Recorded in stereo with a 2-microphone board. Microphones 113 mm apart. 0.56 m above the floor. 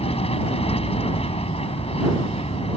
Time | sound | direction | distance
0.0 | an aircraft | 60° left (ahead or behind) | ?